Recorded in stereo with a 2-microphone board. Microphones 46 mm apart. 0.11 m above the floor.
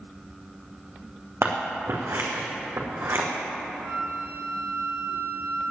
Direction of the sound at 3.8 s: 55° right (ahead or behind).